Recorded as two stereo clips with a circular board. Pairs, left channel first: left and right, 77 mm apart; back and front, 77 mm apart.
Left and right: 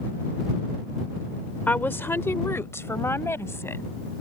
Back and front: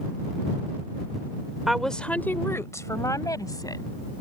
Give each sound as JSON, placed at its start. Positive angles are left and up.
{"t": 1.7, "sound": "a woman speaking", "azimuth_deg": 75}